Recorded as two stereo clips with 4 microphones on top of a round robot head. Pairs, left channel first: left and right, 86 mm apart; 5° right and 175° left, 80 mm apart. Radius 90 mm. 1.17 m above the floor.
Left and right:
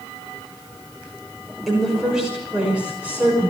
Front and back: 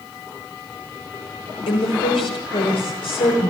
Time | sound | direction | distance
1.7 | a woman speaking | straight ahead | 6.5 m